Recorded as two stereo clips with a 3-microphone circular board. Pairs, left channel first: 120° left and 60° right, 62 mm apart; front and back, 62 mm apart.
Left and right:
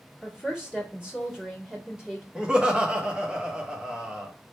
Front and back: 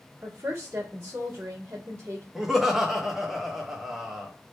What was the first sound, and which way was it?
A woman speaking, 135° right.